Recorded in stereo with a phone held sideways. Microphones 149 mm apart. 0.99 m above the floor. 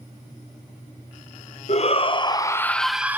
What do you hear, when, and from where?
1.7 s a shout: 45° left (ahead or behind), 0.9 m; by 3.2 s 15° right (ahead or behind), 0.6 m